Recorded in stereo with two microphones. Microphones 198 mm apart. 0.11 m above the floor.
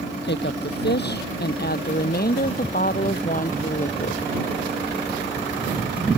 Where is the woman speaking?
60° left (ahead or behind); by 4.3 s 40° left (ahead or behind).